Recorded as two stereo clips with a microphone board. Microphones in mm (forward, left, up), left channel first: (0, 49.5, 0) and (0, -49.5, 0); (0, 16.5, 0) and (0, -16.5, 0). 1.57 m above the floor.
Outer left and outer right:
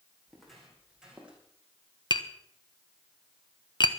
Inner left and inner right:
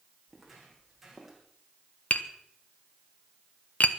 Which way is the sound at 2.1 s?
50° left (ahead or behind).